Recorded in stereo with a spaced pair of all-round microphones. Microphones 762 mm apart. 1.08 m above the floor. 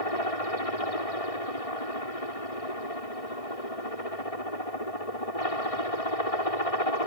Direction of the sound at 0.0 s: 45° left (ahead or behind).